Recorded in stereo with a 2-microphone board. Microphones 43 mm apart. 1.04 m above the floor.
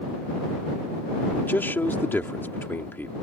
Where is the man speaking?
60° left (ahead or behind).